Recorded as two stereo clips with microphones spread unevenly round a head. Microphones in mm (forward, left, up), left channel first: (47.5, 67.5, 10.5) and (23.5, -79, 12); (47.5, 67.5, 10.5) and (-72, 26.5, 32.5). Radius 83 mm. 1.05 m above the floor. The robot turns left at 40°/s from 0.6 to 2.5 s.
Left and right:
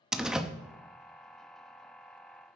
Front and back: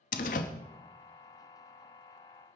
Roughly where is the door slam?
Ahead.